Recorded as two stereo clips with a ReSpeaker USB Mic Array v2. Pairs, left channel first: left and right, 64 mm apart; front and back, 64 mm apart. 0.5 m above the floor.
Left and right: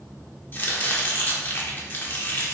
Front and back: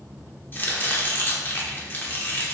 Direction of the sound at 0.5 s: 45° left.